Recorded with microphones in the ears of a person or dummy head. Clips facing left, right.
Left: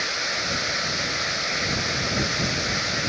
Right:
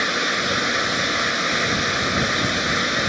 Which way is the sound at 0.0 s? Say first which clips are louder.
Right 7 dB; 80° right.